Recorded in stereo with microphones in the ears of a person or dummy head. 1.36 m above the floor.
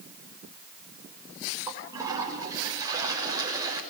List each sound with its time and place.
1.7 s a toilet flushing: 20° right (ahead or behind), 6 m